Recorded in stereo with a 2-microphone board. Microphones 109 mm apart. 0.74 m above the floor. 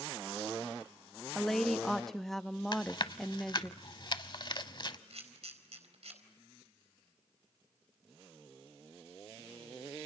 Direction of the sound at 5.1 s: 75° right (ahead or behind).